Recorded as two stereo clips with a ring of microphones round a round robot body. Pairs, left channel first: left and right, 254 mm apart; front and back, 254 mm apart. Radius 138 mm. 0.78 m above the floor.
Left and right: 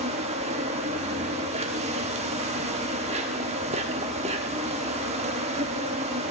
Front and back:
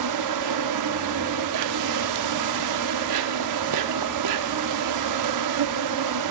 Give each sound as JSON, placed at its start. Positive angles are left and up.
{"t": 0.0, "sound": "an insect", "azimuth_deg": -160, "distance_m": 1.0}